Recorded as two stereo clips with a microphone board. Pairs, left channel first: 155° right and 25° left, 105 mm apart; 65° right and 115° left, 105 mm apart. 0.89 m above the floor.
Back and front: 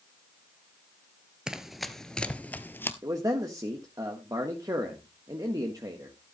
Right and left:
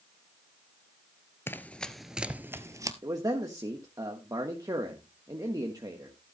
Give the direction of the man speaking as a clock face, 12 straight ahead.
10 o'clock.